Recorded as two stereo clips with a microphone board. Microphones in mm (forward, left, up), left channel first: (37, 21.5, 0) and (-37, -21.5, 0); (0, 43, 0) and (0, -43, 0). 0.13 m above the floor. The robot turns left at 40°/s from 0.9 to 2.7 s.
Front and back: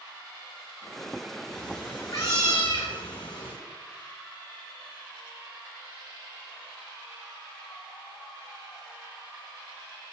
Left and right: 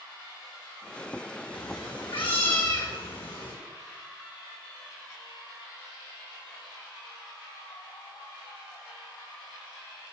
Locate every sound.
1.5 s a cat meowing: 110° left, 2 m; by 3.5 s 65° left, 2 m